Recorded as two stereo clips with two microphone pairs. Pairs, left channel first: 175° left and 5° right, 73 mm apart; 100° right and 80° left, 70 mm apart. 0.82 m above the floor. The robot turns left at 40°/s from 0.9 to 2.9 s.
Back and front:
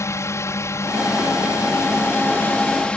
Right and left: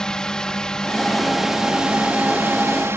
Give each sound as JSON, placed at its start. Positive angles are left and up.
{"t": 0.0, "sound": "a drone", "azimuth_deg": -175}